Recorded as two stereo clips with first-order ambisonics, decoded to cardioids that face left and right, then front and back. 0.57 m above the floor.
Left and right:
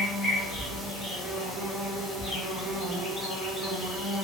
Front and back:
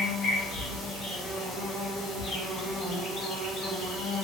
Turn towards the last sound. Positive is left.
turn(degrees=45)